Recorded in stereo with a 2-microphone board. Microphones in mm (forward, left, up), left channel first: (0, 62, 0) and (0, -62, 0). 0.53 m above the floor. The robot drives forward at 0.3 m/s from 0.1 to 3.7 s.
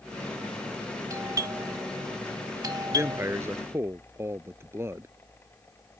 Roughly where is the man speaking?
Right.